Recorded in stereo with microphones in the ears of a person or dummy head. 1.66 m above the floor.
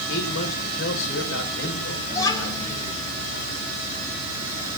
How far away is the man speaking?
About 5 m.